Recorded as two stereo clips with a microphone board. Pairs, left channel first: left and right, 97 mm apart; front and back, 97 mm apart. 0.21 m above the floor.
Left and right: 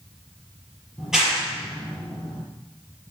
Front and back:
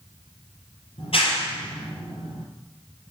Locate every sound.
1.0 s a clap: 5° right, 5 m